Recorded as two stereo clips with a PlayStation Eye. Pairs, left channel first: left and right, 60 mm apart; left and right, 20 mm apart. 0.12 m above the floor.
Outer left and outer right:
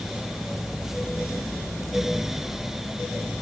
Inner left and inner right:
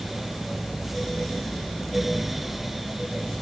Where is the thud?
I don't hear a thud.